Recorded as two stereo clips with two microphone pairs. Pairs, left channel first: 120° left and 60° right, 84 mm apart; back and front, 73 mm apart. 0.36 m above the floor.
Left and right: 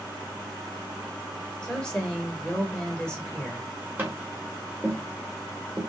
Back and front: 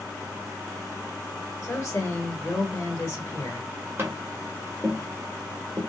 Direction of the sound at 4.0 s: 20° right.